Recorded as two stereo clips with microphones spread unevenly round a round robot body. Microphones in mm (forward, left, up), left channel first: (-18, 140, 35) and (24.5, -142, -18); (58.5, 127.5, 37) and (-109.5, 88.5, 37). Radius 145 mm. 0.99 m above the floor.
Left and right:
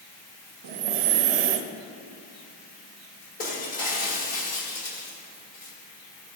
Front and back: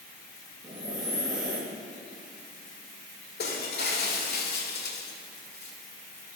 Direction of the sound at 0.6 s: 90° right.